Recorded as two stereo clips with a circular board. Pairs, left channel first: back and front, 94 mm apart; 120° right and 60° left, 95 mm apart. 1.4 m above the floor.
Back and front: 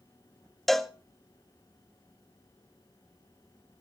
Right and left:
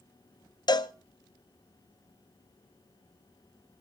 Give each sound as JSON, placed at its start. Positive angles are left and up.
{"t": 0.7, "sound": "a cowbell", "azimuth_deg": -90, "distance_m": 0.6}